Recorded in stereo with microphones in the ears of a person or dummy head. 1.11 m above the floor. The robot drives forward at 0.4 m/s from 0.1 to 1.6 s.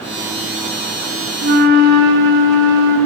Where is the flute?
55° right (ahead or behind), 2 m.